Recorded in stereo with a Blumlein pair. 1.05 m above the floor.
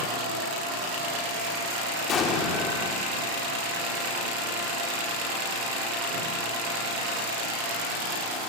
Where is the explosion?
25° left, 2 m.